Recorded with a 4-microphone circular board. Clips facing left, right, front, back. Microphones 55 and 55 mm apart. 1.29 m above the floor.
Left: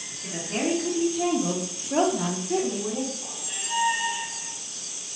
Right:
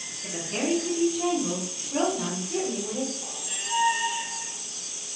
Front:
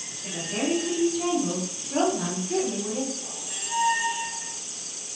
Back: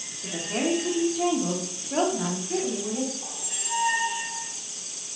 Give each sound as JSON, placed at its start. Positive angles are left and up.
{"t": 0.2, "sound": "a woman speaking", "azimuth_deg": 175, "distance_m": 1.1}
{"t": 3.2, "sound": "a squeak", "azimuth_deg": 180, "distance_m": 1.7}